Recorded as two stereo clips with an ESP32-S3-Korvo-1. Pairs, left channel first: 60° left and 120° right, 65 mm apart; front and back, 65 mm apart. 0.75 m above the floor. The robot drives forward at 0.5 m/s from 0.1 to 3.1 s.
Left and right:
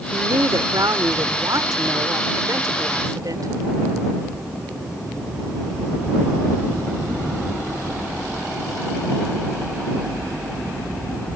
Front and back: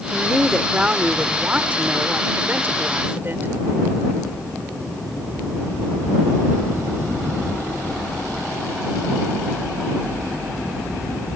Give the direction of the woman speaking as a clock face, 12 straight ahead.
3 o'clock.